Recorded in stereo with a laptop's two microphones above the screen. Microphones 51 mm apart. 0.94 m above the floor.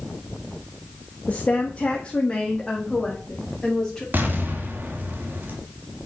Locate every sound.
1.3 s a woman speaking: 30° left (ahead or behind), 1.2 m; by 4.0 s 10° left (ahead or behind), 2.5 m
4.1 s an explosion: 40° right (ahead or behind), 1.5 m